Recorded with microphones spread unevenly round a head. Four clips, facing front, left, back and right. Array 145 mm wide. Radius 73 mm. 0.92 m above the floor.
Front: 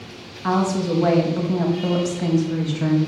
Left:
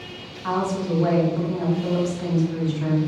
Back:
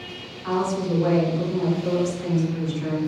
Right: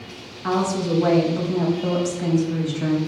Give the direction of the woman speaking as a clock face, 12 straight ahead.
1 o'clock.